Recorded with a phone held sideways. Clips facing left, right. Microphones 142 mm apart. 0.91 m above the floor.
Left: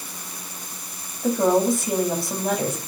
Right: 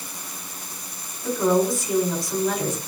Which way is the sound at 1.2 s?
65° left (ahead or behind).